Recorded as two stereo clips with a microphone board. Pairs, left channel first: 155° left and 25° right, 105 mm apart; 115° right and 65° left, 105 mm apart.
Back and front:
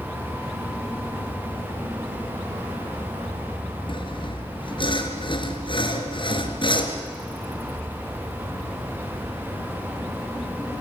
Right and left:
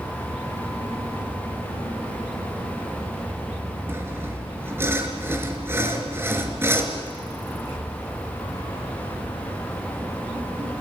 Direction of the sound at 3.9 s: 130° left.